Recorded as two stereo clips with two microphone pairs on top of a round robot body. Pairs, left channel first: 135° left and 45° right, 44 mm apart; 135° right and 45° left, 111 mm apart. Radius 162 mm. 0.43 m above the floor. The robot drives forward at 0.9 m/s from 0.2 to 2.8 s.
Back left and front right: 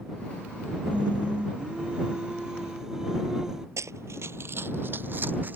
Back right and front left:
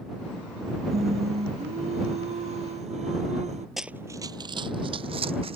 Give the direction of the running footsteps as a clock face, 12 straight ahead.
2 o'clock.